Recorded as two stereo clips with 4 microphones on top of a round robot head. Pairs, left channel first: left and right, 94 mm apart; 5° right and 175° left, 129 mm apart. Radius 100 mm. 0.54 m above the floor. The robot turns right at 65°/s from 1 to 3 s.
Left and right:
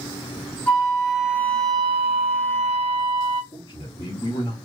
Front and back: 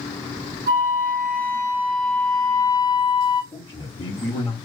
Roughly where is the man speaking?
Ahead left.